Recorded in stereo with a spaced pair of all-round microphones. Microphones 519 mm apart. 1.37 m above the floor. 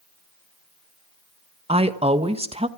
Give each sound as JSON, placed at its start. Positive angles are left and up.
{"t": 1.7, "sound": "a woman speaking", "side_deg": -10, "distance_m": 1.3}